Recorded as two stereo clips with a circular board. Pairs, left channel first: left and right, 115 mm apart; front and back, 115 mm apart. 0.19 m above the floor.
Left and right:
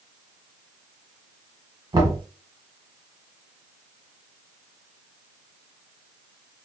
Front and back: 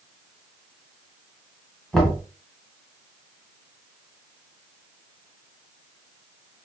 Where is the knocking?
90° right, 1.2 m.